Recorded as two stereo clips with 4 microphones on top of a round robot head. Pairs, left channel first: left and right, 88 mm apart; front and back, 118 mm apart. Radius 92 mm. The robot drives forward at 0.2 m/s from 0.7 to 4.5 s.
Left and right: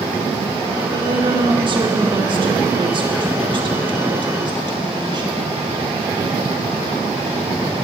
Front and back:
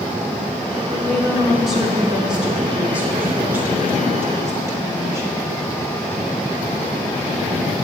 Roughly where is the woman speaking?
Right.